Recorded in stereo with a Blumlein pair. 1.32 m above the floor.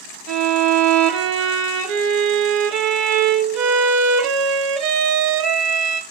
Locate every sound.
0.3 s a violin: 35° right, 0.5 m